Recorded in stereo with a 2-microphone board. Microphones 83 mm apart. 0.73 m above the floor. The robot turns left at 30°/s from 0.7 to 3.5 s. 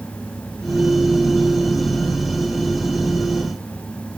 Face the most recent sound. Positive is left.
No sound to turn to.